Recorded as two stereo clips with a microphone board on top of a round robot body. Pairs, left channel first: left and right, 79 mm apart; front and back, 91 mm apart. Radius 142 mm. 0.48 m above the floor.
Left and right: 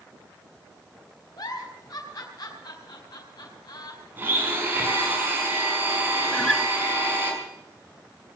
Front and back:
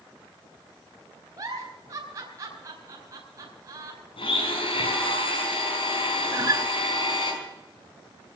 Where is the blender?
25° right, 5.5 m.